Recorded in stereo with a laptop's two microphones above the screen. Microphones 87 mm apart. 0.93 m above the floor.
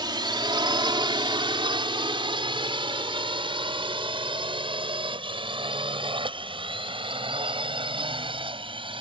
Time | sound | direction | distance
0.0 | a drone | 60° right (ahead or behind) | ?